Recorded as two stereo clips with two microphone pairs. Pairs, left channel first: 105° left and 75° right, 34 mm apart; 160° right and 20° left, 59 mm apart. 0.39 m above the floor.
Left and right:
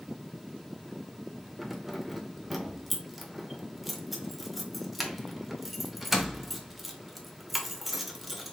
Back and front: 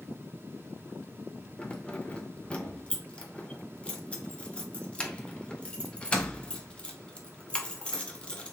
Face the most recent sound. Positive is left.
turn(degrees=-155)